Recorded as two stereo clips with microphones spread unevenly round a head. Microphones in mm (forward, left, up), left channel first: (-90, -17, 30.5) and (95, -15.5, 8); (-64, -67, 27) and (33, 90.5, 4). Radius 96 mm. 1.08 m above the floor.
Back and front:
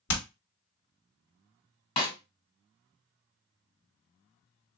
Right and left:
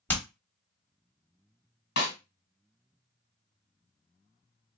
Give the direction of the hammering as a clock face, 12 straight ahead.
7 o'clock.